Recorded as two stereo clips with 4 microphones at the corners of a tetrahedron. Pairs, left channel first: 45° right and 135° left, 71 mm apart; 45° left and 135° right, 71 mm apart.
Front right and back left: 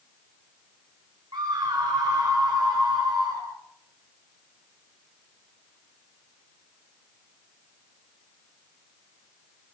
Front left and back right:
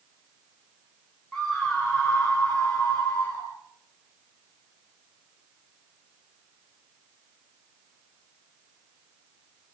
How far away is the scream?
About 4.5 m.